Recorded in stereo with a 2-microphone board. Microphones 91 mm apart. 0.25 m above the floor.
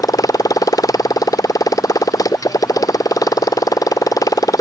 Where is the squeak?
I don't hear a squeak.